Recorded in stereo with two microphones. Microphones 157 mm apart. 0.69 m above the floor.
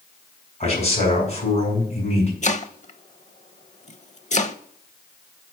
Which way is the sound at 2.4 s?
45° left (ahead or behind).